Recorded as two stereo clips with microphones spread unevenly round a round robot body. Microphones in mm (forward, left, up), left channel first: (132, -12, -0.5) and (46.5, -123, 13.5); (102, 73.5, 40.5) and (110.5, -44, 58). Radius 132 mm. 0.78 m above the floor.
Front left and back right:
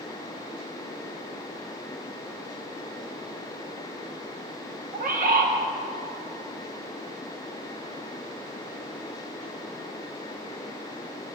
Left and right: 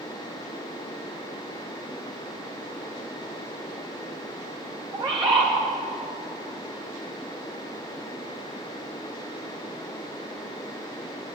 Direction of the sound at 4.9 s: 145° right.